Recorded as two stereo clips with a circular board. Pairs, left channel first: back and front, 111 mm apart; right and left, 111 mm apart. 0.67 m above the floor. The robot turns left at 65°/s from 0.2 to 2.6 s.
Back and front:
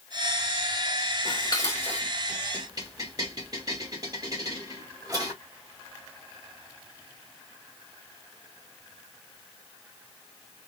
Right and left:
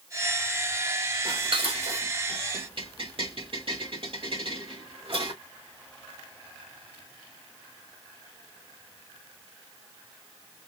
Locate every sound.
1.2 s dishes clattering: 140° left, 2.5 m; by 5.3 s 55° left, 2.5 m